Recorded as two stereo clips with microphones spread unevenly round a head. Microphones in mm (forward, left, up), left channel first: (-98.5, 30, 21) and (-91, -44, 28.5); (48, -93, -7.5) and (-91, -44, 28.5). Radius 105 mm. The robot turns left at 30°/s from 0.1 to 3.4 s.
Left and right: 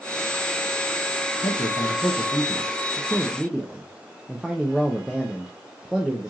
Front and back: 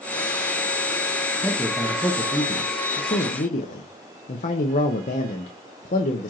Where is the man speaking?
65° left, 0.7 m; by 6.3 s 5° left, 0.7 m.